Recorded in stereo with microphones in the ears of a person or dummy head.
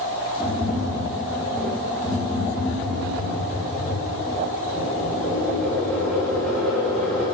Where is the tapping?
5° left (ahead or behind), 3.5 m.